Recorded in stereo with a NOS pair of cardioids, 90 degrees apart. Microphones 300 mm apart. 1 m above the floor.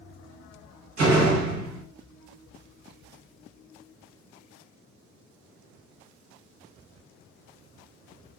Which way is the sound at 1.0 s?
65° right.